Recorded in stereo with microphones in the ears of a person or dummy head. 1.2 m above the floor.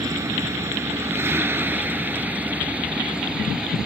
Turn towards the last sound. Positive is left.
turn(degrees=-5)  # may be behind; listen again after turning